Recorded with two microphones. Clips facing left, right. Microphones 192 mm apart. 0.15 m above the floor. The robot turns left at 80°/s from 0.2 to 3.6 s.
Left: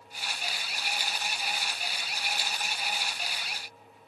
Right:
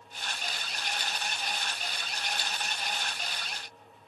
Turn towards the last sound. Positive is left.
No sound to turn to.